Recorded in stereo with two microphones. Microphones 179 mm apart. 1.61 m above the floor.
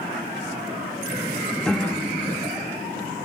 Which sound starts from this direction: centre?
A piano, at 1.6 s.